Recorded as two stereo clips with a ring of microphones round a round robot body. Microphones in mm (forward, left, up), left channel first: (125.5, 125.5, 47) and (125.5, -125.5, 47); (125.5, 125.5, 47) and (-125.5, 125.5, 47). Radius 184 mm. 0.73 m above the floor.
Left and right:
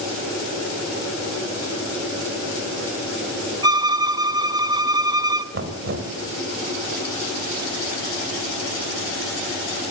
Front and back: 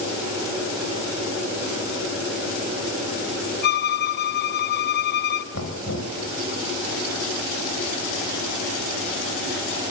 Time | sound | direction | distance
3.6 | a violin | 25° right | 1.0 m
5.5 | knocking | 55° right | 2.5 m